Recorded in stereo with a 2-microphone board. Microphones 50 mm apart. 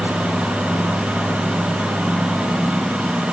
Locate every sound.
Only background noise.